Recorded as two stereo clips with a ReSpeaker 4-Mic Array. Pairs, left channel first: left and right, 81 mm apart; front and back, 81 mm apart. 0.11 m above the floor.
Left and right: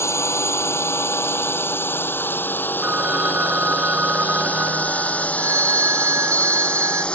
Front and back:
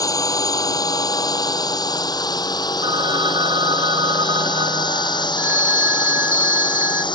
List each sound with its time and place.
0.0 s a drone: 40° left; by 7.2 s 15° left
2.8 s a phone ringing: 160° right
5.4 s a phone ringing: 125° right